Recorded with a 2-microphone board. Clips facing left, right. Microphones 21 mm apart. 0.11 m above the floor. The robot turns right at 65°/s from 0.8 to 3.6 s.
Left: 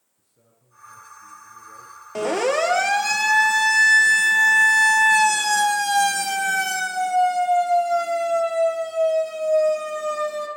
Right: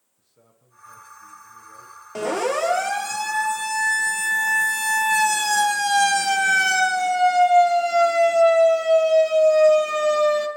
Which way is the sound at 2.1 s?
5° left (ahead or behind).